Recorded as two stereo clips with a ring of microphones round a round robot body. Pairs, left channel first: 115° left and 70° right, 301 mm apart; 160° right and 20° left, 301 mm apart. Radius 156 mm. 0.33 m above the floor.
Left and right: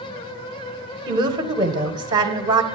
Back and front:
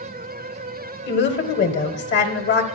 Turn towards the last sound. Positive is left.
turn(degrees=-135)